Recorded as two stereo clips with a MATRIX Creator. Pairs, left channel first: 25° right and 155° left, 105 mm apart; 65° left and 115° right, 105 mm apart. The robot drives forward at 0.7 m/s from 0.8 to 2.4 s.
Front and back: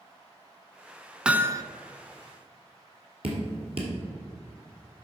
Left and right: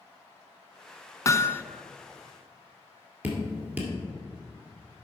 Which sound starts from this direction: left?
Hammering, at 1.2 s.